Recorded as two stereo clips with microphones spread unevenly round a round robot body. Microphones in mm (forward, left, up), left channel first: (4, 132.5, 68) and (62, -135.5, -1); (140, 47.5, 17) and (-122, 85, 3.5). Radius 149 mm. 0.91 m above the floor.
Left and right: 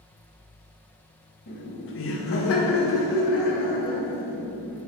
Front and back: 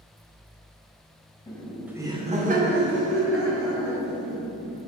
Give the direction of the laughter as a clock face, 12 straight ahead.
10 o'clock.